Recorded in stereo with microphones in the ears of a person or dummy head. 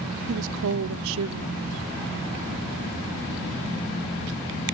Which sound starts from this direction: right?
A woman speaking, at 0.3 s.